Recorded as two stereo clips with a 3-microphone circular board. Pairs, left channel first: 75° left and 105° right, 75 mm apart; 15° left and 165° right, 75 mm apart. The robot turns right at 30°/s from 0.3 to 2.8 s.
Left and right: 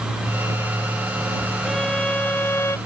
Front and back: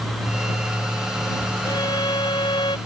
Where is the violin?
15° right; by 2.8 s 20° left.